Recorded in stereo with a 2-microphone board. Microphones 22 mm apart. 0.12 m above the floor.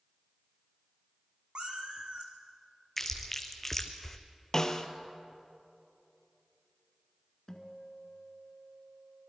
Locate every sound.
1.6 s a cat meowing: 45° right (ahead or behind), 2.5 m
3.0 s chewing: 10° left (ahead or behind), 1.5 m
4.5 s a snare drum: 30° left (ahead or behind), 1.2 m
7.5 s a guitar: 25° left (ahead or behind), 2.0 m